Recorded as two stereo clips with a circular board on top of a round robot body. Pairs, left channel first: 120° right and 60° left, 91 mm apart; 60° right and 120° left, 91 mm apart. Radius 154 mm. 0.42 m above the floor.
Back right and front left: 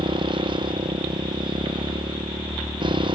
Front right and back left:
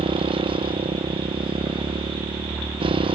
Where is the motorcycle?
95° left.